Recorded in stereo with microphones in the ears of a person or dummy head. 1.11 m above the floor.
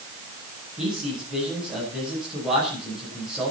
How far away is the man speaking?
About 9.5 m.